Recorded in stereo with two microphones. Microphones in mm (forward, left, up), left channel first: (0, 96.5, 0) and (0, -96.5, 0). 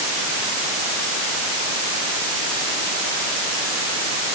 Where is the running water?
I don't hear running water.